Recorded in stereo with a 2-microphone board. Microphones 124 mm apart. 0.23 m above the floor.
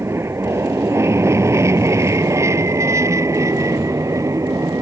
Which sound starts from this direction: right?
An aircraft, at 0.0 s.